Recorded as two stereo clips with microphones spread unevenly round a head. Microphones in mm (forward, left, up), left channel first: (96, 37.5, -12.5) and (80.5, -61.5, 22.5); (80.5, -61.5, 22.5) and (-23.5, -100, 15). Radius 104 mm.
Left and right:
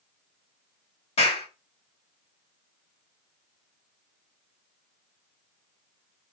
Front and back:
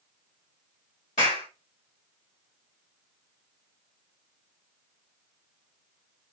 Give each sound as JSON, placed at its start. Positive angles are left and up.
{"t": 1.2, "sound": "a clap", "azimuth_deg": 70, "distance_m": 4.0}